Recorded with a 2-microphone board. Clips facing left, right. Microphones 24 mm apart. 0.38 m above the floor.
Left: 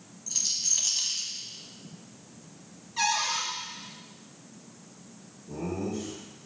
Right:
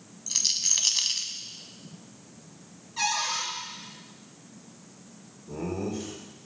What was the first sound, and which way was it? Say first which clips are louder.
A rattle: right 3 dB; 45° right (ahead or behind).